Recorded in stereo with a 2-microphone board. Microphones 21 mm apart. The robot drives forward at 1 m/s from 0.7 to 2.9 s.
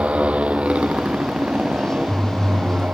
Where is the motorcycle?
85° right; by 2.9 s 75° right (ahead or behind).